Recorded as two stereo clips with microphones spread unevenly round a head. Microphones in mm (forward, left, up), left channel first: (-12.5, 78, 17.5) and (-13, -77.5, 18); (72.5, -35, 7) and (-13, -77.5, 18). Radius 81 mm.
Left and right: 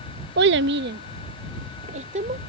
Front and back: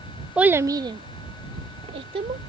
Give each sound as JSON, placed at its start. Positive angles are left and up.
{"t": 0.4, "sound": "a child speaking", "azimuth_deg": -70}